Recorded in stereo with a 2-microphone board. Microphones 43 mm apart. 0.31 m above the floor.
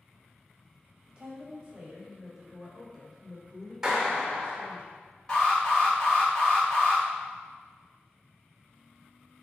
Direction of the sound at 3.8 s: 10° right (ahead or behind).